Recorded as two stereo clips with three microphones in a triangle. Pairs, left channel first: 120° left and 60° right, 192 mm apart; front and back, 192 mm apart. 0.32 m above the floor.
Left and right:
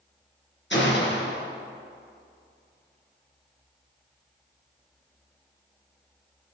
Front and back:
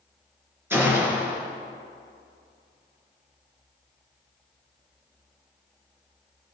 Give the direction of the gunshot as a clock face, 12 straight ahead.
9 o'clock.